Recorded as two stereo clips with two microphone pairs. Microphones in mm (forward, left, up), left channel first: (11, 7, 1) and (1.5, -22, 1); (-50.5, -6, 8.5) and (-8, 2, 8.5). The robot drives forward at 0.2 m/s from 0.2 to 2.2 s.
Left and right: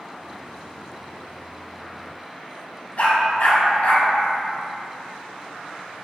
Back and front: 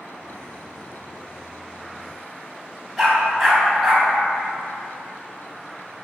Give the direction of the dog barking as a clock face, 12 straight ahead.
9 o'clock.